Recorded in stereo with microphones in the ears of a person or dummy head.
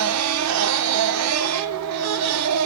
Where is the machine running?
85° right, 0.8 m.